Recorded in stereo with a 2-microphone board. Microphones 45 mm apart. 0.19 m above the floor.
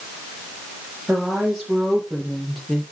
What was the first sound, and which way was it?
A woman speaking, 15° right (ahead or behind).